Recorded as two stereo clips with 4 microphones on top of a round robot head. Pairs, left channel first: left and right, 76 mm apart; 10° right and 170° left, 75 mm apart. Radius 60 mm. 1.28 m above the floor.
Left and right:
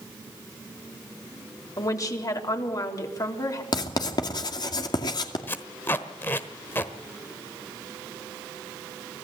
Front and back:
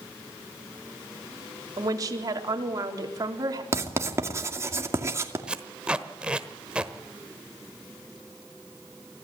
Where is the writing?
120° left, 2.5 m.